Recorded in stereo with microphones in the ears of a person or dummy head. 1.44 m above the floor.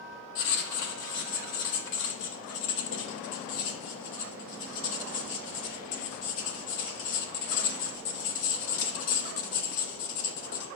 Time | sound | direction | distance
0.3 | writing | 55° left (ahead or behind) | 1.0 m